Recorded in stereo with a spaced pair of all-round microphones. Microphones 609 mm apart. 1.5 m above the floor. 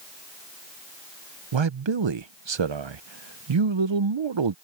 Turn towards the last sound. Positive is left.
turn(degrees=-50)  # may be behind; listen again after turning